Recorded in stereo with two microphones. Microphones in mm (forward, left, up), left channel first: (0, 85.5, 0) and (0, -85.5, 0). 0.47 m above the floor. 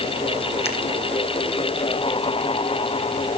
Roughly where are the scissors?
Left.